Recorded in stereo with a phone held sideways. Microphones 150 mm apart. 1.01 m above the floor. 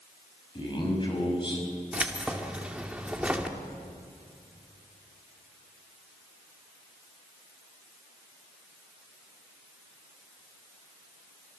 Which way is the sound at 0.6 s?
35° left (ahead or behind).